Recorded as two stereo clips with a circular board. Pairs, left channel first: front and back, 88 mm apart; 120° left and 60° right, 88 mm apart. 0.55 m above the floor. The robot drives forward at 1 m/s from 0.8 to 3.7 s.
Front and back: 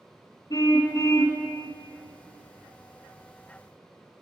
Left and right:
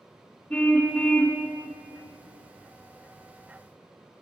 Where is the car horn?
45° left, 2.5 m; by 1.4 s 55° left, 2.5 m.